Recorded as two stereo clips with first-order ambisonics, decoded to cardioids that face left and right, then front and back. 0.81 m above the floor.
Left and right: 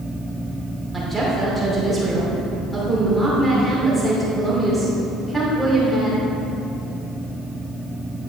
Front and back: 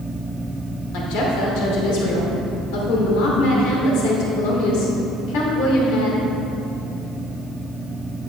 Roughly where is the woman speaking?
Ahead.